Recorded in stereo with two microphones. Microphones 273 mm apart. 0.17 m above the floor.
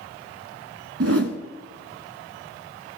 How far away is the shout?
No shout in this recording.